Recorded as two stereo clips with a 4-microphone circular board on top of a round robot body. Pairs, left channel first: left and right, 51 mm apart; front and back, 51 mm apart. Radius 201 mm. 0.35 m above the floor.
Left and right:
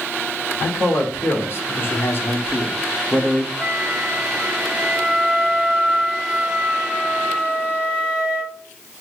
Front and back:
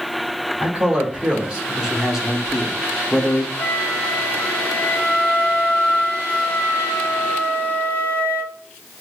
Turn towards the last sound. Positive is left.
turn(degrees=-20)